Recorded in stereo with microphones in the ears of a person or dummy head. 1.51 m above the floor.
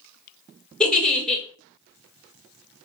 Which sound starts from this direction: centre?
A giggle, at 0.8 s.